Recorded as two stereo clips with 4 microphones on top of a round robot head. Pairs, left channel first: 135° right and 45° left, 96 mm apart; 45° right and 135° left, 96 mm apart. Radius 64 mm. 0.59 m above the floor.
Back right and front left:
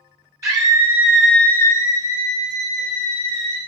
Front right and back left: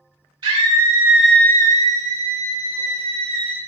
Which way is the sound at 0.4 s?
100° left.